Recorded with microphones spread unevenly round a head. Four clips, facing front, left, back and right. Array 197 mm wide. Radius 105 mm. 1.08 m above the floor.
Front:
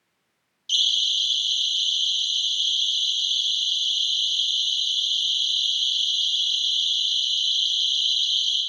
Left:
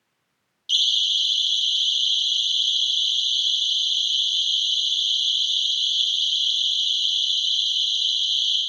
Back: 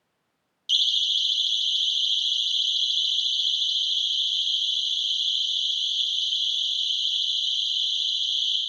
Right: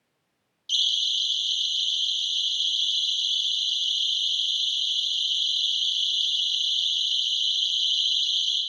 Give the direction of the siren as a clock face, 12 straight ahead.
5 o'clock.